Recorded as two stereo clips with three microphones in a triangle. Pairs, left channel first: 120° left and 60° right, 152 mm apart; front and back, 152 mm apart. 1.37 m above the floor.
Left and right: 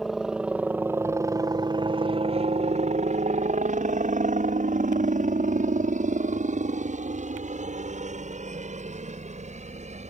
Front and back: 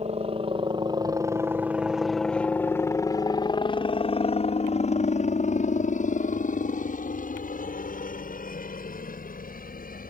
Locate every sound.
0.0 s a helicopter: 150° right; by 10.1 s 20° right